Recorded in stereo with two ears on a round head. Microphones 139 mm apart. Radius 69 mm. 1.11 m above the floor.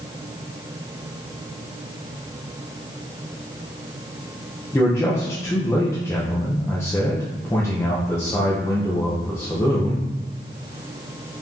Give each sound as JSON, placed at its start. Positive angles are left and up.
{"t": 4.7, "sound": "a man speaking", "side_deg": 15, "distance_m": 0.6}